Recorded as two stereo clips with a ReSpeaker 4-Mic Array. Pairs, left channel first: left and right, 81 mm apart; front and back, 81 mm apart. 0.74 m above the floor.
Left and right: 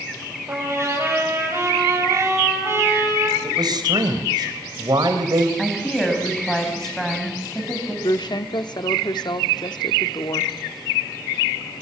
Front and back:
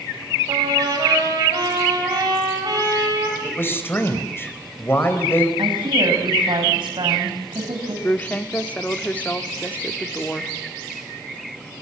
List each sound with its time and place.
0.5 s a trumpet: 145° right, 8.5 m
3.4 s a man speaking: 60° right, 3.5 m
5.6 s a woman speaking: 175° left, 5.5 m
8.0 s a woman speaking: 70° left, 1.3 m